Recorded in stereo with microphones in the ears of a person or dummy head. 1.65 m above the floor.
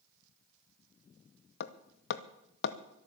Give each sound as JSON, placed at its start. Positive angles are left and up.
{"t": 1.6, "sound": "hammering", "side_deg": 55, "distance_m": 1.0}